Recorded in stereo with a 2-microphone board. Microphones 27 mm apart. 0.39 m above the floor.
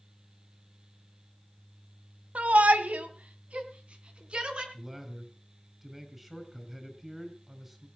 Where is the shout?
65° right (ahead or behind), 1.9 m; by 4.6 s 45° right (ahead or behind), 4 m.